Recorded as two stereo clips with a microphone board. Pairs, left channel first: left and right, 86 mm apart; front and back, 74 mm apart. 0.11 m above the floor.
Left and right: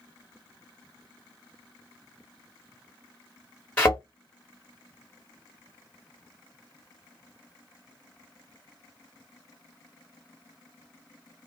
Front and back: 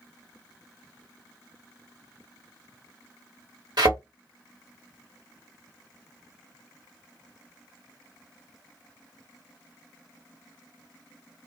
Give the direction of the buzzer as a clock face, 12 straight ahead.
No buzzer in this recording.